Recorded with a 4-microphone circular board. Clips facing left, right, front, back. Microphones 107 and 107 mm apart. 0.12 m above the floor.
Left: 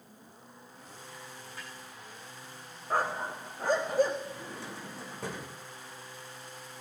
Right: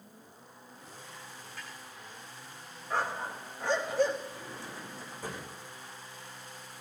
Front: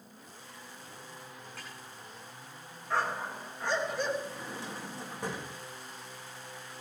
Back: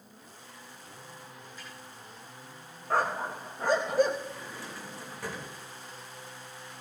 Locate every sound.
1.6 s a snare drum: 20° left, 9 m
2.9 s a dog barking: 135° left, 2.5 m
4.2 s a drawer: 70° left, 4.5 m